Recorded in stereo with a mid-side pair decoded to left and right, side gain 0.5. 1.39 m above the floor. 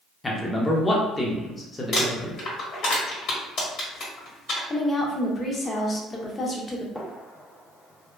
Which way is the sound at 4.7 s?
25° left.